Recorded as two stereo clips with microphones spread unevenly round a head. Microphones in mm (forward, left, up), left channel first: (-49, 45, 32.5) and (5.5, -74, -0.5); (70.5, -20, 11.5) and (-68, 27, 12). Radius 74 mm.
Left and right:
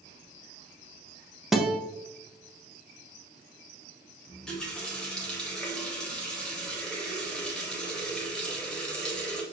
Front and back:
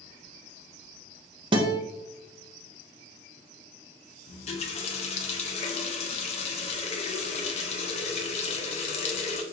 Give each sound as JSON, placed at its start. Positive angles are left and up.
{"t": 1.5, "sound": "a guitar", "azimuth_deg": -145, "distance_m": 0.7}
{"t": 4.3, "sound": "a running tap", "azimuth_deg": 30, "distance_m": 0.7}